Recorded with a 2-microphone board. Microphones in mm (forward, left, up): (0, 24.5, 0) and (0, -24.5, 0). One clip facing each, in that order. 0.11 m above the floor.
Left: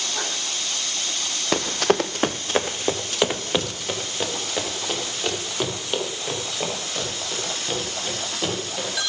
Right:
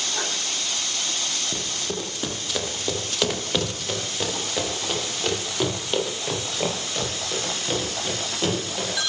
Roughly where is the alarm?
No alarm in this recording.